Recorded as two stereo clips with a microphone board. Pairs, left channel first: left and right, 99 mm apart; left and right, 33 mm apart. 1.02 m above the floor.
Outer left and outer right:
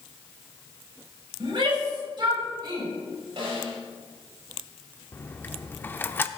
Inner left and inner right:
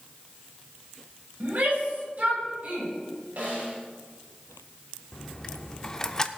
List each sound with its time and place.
1.4 s a shout: 55° right (ahead or behind), 5.5 m; by 2.9 s 45° right (ahead or behind), 4.5 m
3.4 s a snare drum: 55° right (ahead or behind), 5 m
5.1 s a dropped coin: 20° left (ahead or behind), 0.6 m